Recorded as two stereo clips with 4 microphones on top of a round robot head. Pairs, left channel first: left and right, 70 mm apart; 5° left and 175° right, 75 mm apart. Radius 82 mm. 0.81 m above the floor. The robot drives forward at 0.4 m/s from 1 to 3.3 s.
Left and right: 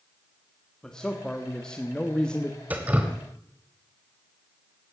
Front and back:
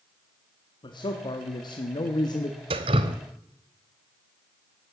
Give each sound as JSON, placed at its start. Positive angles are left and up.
{"t": 0.8, "sound": "a man speaking", "azimuth_deg": 10, "distance_m": 1.8}
{"t": 2.7, "sound": "dripping", "azimuth_deg": -165, "distance_m": 0.9}